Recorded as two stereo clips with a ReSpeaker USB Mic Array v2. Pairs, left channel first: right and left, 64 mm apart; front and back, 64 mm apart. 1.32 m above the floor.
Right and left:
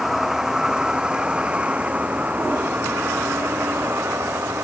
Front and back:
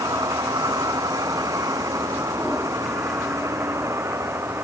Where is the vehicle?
175° left; by 4.6 s 140° left.